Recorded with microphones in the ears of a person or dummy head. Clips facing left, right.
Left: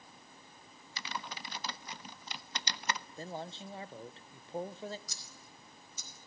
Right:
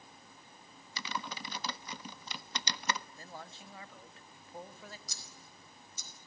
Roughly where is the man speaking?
Left.